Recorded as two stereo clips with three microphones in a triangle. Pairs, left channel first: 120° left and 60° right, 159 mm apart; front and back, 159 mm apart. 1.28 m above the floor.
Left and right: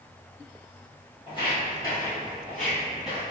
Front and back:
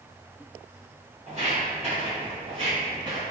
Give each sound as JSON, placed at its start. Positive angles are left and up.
{"t": 1.3, "sound": "footsteps", "azimuth_deg": 165, "distance_m": 1.9}